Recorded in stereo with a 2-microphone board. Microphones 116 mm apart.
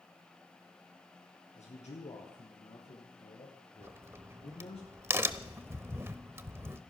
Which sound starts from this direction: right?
A crack, at 3.8 s.